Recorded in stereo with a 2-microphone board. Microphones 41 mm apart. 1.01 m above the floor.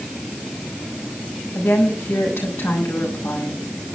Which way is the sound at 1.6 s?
80° left.